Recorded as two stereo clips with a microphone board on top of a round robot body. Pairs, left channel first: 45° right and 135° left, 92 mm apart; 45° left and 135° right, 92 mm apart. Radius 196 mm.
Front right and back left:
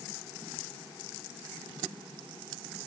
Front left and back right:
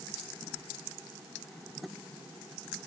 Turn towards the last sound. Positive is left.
No sound to turn to.